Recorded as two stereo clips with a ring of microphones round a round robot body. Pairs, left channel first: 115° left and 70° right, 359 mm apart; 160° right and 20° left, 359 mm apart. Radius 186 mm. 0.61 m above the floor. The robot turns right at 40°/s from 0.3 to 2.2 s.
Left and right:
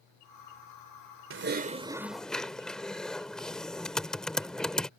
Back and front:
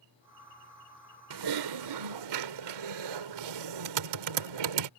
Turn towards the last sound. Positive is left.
turn(degrees=25)